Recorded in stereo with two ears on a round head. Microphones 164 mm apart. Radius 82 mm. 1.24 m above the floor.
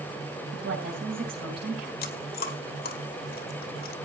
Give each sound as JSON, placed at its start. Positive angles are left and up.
{"t": 0.5, "sound": "a woman speaking", "side_deg": -55, "distance_m": 7.5}
{"t": 2.0, "sound": "chewing", "side_deg": 55, "distance_m": 1.3}